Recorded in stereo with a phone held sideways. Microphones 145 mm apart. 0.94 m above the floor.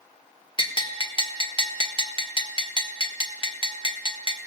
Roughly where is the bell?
Left.